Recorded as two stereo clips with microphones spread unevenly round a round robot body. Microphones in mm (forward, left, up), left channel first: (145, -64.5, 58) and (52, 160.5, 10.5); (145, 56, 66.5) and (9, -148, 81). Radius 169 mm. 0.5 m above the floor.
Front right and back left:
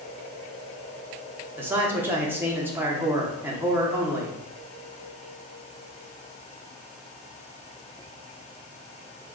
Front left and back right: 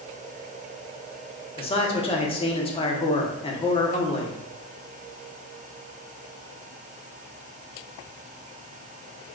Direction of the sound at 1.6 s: 70° left.